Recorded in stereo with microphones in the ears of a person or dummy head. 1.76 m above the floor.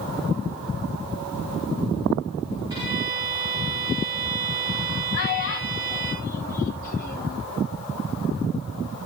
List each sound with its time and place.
2.7 s a violin: 25° right (ahead or behind), 5 m
5.1 s a child speaking: 50° left (ahead or behind), 1.5 m